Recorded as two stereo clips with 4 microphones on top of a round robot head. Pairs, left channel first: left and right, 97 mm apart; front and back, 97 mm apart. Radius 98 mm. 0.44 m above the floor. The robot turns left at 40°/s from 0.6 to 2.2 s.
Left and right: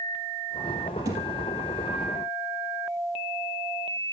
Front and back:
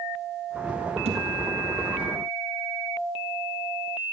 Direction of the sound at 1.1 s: 155° right.